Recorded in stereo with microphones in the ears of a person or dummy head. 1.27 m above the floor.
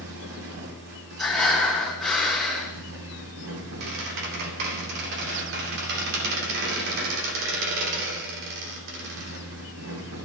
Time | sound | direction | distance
0.0 | a fan | 70° right (ahead or behind) | 4 m
1.2 | breathing | centre (ahead or behind) | 3.5 m
3.8 | a squeak | 75° right (ahead or behind) | 3 m